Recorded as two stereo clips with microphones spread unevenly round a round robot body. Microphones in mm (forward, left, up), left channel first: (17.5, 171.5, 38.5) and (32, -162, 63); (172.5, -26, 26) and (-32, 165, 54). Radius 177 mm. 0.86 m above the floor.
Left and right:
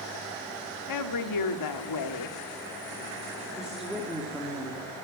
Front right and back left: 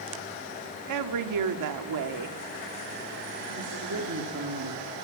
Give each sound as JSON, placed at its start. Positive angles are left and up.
{"t": 0.9, "sound": "a woman speaking", "azimuth_deg": 125, "distance_m": 1.7}
{"t": 3.5, "sound": "a woman speaking", "azimuth_deg": -175, "distance_m": 2.5}